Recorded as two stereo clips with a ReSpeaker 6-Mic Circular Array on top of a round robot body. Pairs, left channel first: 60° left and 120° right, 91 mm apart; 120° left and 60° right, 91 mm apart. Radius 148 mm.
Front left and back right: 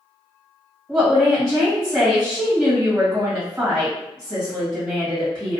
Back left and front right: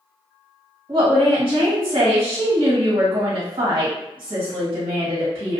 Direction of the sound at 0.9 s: 25° right.